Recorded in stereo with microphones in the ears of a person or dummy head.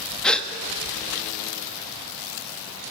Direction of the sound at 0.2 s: Centre (ahead or behind).